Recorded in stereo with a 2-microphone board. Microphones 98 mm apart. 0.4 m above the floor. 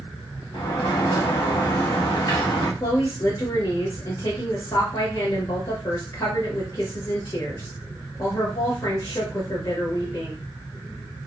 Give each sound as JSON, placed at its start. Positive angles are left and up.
{"t": 0.5, "sound": "a sliding door", "side_deg": 60, "distance_m": 1.1}
{"t": 2.8, "sound": "a woman speaking", "side_deg": 45, "distance_m": 1.3}